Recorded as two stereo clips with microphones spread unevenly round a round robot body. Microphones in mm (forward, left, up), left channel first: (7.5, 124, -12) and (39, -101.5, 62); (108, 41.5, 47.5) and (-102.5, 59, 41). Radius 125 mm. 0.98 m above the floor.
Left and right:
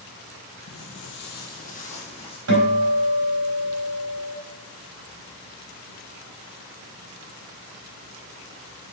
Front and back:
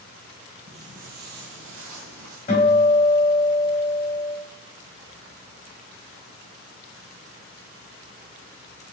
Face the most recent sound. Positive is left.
turn(degrees=-70)